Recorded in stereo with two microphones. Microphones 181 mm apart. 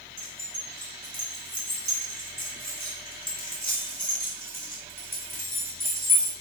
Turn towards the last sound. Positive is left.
turn(degrees=-15)  # may be behind; listen again after turning